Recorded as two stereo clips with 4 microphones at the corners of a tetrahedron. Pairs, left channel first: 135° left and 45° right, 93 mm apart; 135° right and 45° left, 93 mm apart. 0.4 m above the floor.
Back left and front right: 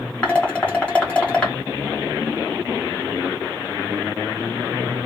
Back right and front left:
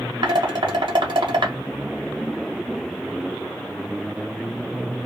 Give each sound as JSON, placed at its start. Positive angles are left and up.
{"t": 0.2, "sound": "dishes clattering", "azimuth_deg": 60, "distance_m": 1.4}